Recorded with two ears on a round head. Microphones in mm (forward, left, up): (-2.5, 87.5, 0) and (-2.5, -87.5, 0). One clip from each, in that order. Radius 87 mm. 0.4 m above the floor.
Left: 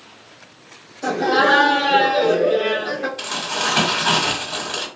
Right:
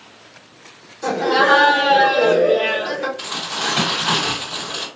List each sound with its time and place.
1.0 s laughter: 5° right (ahead or behind), 1.1 m; by 3.1 s 40° right (ahead or behind), 1.2 m
3.2 s crumpling: 35° left (ahead or behind), 1.4 m